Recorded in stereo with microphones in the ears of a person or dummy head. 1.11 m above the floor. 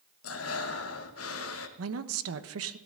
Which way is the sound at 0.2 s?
70° left (ahead or behind).